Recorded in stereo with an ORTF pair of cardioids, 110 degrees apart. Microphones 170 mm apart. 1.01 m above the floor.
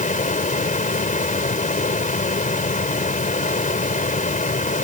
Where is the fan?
50° left.